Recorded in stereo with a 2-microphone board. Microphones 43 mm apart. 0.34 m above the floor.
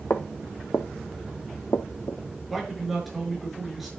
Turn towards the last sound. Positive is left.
turn(degrees=0)  # may be behind; listen again after turning